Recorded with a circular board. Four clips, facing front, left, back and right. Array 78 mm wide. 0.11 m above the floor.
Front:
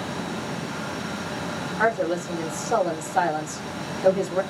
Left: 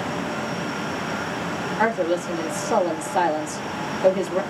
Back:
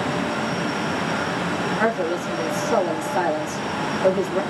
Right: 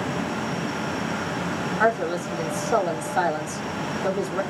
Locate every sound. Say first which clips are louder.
1.8 s a woman speaking: left 1 dB, front 2 dB; 95° left, 3 m